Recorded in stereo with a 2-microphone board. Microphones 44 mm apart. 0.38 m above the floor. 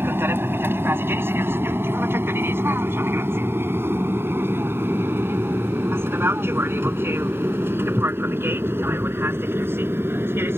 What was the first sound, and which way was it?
An aircraft, 60° right (ahead or behind).